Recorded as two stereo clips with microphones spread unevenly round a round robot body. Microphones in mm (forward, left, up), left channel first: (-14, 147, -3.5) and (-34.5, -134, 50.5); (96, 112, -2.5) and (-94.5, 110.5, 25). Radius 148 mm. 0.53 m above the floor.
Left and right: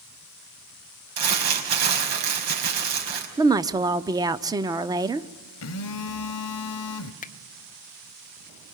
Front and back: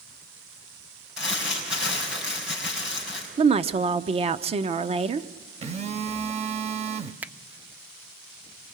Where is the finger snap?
90° left, 0.7 m.